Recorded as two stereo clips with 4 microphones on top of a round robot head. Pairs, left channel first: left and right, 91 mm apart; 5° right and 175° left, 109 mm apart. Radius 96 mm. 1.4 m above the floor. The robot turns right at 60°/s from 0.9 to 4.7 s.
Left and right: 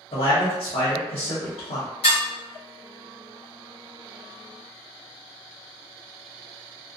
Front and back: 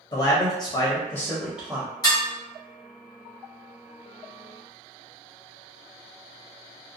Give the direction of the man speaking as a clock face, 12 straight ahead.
11 o'clock.